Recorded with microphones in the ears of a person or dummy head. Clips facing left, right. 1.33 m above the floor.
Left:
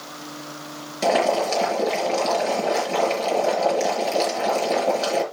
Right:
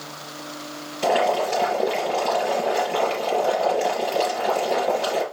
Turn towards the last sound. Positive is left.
turn(degrees=75)  # may be behind; listen again after turning